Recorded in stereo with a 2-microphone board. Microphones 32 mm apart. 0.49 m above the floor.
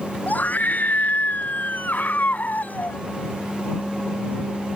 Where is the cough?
I don't hear a cough.